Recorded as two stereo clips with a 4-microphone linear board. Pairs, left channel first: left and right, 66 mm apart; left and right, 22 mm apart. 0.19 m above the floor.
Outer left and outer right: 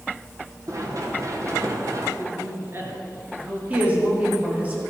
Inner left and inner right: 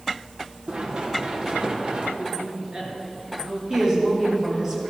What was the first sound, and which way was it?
Running footsteps, 55° right (ahead or behind).